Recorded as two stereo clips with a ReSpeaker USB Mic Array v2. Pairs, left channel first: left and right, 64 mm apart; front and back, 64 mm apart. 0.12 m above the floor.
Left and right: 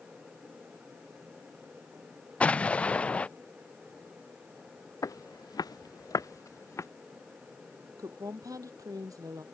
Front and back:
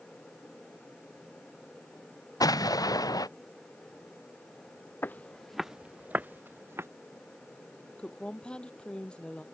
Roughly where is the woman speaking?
Right.